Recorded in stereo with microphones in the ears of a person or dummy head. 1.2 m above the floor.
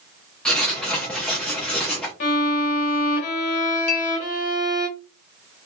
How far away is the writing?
About 0.8 m.